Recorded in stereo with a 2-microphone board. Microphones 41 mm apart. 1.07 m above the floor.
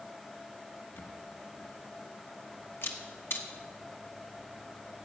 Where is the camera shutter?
65° left (ahead or behind), 1.2 m.